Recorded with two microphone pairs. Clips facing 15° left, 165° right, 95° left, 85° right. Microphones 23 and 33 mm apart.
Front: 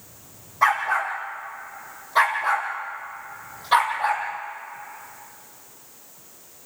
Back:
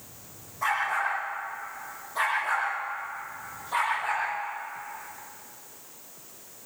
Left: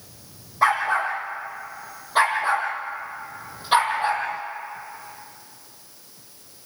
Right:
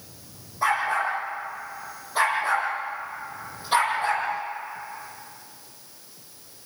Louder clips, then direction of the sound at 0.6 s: Front 6 dB, left 3 dB; 60° left.